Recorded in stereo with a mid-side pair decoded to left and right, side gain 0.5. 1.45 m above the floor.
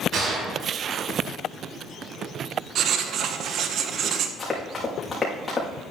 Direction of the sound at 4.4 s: 25° left.